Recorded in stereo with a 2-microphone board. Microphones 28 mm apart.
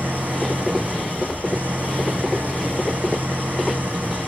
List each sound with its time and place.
0.0 s an engine running: 75° right (ahead or behind), 2.5 m